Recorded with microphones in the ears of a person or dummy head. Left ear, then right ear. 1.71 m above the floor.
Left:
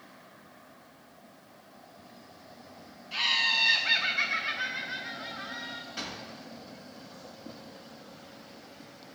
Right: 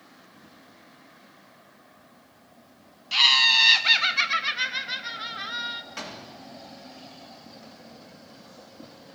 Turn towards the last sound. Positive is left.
turn(degrees=-35)  # may be behind; listen again after turning